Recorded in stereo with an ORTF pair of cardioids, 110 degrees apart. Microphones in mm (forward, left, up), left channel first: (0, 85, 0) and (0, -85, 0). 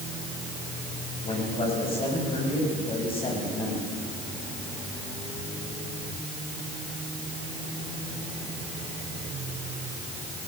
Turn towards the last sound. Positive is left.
turn(degrees=35)